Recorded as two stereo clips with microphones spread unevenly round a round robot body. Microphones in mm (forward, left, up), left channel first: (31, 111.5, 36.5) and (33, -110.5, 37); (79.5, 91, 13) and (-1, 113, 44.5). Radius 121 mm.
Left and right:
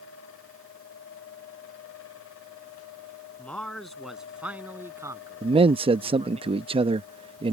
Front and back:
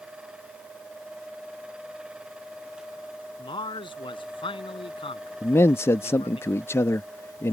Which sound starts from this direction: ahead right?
A man speaking, at 5.4 s.